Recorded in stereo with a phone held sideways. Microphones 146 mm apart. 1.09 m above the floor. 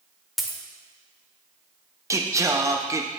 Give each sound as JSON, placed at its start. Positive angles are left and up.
{"t": 0.4, "sound": "a dropped coin", "side_deg": 0, "distance_m": 0.8}
{"t": 2.1, "sound": "singing", "side_deg": -20, "distance_m": 0.5}